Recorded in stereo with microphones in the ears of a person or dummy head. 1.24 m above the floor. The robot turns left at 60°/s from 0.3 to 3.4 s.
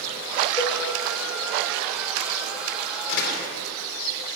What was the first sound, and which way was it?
A cowbell, 15° left (ahead or behind).